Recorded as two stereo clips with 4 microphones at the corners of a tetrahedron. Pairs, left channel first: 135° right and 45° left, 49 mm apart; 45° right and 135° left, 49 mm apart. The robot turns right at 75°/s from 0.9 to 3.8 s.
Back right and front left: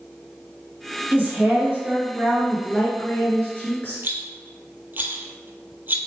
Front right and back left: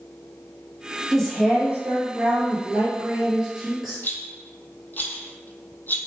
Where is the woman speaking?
30° left, 1.5 m; by 4.0 s 130° right, 1.5 m.